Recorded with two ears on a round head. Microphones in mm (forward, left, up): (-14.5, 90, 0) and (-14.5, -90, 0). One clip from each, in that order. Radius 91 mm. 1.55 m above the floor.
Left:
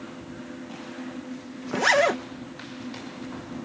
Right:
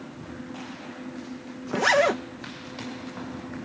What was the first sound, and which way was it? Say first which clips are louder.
A zipper: even; 15° left (ahead or behind).